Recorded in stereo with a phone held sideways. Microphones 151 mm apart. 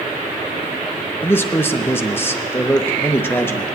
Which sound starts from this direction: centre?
A man speaking, at 1.2 s.